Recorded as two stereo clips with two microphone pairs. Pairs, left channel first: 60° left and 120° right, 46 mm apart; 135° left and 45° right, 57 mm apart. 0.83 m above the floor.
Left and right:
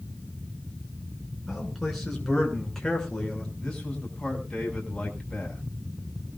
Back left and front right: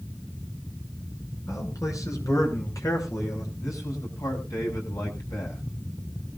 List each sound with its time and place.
1.5 s a man speaking: 150° left, 9.5 m; by 3.5 s 135° left, 9.5 m
3.6 s a man speaking: 130° left, 8.5 m